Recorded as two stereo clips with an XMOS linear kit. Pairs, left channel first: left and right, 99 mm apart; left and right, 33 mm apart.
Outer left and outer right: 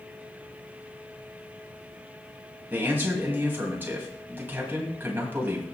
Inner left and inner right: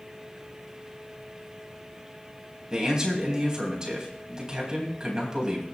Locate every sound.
2.7 s a man speaking: 20° right (ahead or behind), 4 m